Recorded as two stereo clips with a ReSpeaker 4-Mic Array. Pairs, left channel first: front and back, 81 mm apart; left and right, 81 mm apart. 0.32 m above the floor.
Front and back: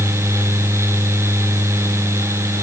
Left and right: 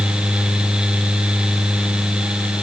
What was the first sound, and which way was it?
Only background noise.